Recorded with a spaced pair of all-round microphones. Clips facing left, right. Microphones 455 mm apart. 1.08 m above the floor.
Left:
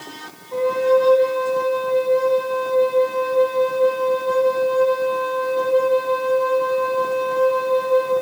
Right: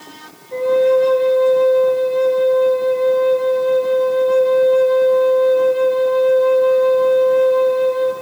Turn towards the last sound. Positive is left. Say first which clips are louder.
# right 3 dB
turn(degrees=10)  # may be behind; listen again after turning